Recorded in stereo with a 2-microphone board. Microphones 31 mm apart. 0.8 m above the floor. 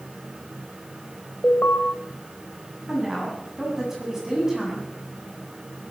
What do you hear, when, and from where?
1.4 s an alarm: 85° left, 2.5 m
2.9 s a woman speaking: 10° right (ahead or behind), 7.5 m